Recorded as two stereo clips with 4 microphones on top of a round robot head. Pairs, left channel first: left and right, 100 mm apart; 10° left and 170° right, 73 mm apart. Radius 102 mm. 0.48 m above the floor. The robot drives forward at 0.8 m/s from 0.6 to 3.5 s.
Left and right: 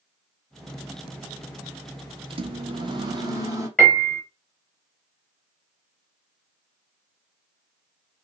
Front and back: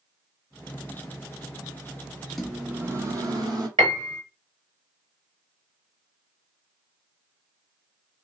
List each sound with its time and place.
2.3 s a microwave: 70° right, 0.7 m; by 3.7 s 145° right, 1.1 m
3.8 s a piano: 170° left, 1.0 m